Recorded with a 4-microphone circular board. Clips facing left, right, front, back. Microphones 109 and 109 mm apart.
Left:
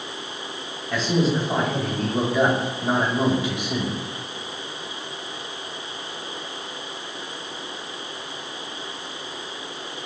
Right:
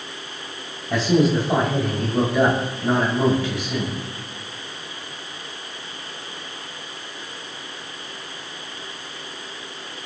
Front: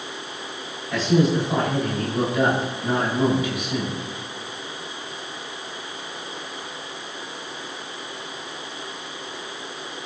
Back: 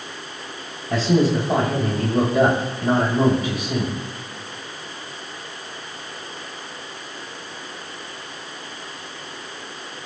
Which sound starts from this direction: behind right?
A man speaking, at 0.9 s.